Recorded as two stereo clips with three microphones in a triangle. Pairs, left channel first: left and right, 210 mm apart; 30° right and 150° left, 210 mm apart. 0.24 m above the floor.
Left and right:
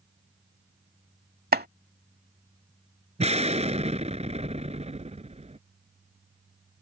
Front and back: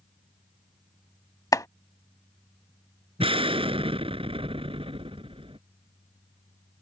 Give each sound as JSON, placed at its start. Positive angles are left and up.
{"t": 1.5, "sound": "chopping", "azimuth_deg": -100}
{"t": 3.2, "sound": "an explosion", "azimuth_deg": -145}